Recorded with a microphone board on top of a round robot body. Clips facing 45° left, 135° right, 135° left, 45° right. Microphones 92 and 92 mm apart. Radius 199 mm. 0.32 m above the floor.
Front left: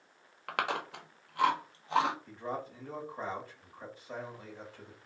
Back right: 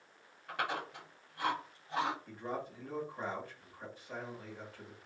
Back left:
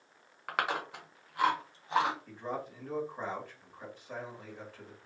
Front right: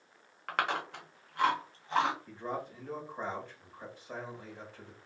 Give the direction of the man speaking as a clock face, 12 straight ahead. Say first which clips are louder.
Front left 2 dB, even; 11 o'clock.